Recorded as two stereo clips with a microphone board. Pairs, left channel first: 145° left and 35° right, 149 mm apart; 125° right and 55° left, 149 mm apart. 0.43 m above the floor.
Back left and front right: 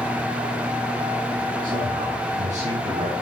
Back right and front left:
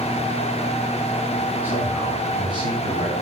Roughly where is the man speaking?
Ahead.